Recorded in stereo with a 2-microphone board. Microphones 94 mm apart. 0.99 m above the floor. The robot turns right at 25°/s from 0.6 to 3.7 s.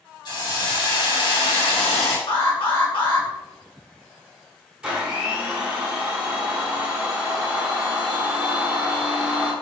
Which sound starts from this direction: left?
An alarm, at 2.3 s.